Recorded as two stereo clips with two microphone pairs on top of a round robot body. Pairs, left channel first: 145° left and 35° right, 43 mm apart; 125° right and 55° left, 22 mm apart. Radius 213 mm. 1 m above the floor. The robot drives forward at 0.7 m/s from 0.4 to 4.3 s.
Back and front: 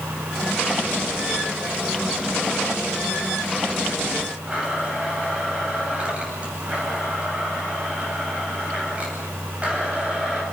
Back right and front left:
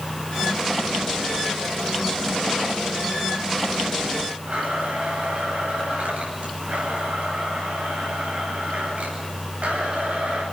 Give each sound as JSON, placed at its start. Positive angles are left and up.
{"t": 4.5, "sound": "a blender", "azimuth_deg": 30, "distance_m": 9.0}